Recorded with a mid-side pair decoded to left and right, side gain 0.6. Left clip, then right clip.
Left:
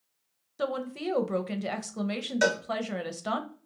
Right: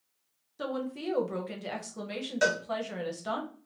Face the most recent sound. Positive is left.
turn(degrees=15)